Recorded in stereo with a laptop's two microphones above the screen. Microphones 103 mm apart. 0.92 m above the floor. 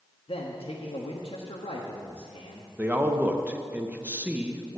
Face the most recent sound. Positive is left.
turn(degrees=-15)  # may be behind; listen again after turning